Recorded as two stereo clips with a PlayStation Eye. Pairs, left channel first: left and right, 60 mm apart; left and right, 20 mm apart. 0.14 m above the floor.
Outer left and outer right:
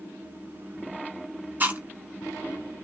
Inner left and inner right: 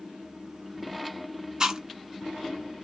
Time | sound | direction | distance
1.6 | chewing | 30° right (ahead or behind) | 1.0 m